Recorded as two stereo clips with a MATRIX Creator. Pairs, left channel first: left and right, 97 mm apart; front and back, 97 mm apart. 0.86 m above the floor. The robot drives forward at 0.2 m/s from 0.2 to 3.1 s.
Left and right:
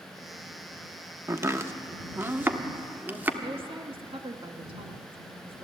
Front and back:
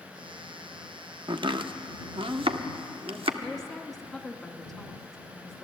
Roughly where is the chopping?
Behind right.